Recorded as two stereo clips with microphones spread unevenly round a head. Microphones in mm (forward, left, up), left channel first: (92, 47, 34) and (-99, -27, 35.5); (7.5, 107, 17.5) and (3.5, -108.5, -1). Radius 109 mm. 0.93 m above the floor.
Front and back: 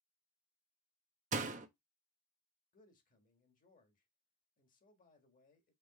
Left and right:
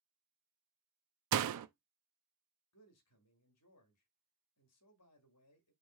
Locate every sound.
1.3 s a door slam: 100° right, 0.6 m
2.7 s a man speaking: 75° left, 1.5 m